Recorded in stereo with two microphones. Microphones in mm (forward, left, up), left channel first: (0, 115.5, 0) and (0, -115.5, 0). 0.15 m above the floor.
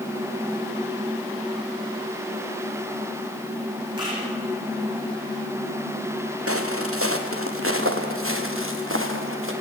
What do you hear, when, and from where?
4.0 s a camera shutter: 20° right (ahead or behind), 10 m
6.5 s footsteps: 75° right (ahead or behind), 1.8 m; by 9.5 s 60° right (ahead or behind), 3.5 m